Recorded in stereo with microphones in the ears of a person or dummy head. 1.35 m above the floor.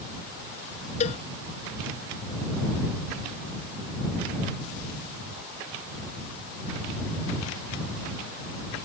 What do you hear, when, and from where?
1.0 s a cowbell: 45° left (ahead or behind)